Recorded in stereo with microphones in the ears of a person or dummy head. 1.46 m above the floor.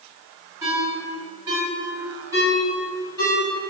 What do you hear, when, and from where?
0.6 s a ringtone: 20° right (ahead or behind), 1.8 m